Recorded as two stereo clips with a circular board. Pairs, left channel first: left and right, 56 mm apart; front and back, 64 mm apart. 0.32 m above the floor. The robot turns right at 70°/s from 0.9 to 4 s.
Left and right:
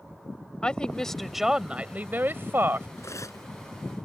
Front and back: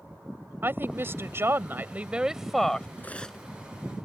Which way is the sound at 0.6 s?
155° left.